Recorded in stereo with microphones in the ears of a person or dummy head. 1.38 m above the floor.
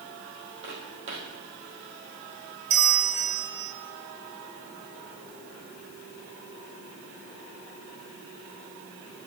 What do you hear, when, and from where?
0.6 s footsteps: 35° right (ahead or behind), 3 m
2.7 s a bell: 50° right (ahead or behind), 0.9 m